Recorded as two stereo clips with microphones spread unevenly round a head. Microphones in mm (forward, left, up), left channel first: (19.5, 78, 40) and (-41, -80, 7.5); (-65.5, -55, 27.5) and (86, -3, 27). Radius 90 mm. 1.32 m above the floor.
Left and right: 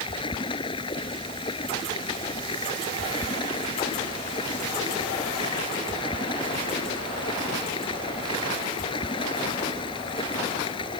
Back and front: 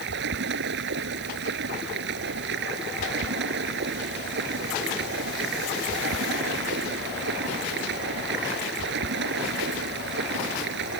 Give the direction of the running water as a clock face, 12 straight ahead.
12 o'clock.